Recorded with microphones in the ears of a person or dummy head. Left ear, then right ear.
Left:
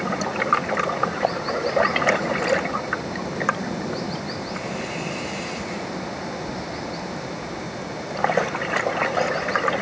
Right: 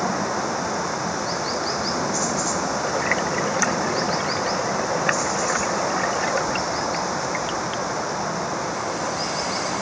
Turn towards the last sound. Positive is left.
turn(degrees=-45)  # may be behind; listen again after turning